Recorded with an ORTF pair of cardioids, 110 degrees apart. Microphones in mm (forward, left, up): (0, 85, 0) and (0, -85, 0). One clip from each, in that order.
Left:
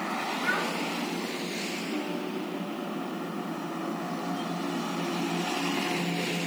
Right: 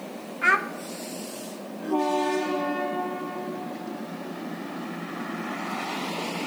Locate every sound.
0.4 s a child speaking: 65° right, 0.6 m